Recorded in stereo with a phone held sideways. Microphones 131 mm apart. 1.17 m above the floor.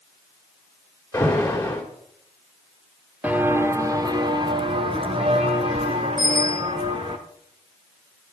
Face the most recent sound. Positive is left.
turn(degrees=-80)